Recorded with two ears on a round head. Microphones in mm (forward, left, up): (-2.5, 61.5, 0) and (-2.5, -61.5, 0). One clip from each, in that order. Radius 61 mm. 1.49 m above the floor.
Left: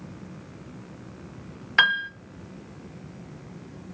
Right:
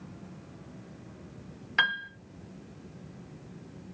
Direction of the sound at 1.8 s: 15° left (ahead or behind).